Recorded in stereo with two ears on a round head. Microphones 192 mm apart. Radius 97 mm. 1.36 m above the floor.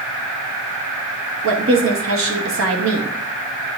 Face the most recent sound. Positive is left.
turn(degrees=-65)  # may be behind; listen again after turning